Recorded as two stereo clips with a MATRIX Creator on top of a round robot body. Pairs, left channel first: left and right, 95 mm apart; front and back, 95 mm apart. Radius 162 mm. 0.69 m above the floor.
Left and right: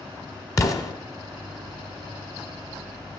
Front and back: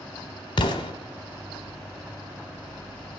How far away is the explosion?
About 1.0 m.